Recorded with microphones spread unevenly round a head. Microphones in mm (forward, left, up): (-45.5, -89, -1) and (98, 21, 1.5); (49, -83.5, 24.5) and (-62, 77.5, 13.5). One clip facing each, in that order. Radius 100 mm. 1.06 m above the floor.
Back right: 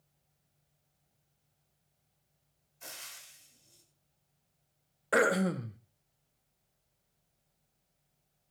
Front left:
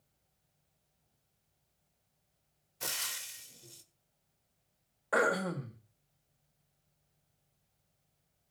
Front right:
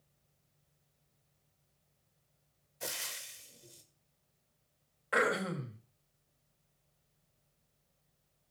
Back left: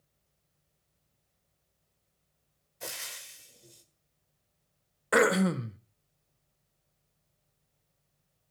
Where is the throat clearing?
150° left, 1.3 m.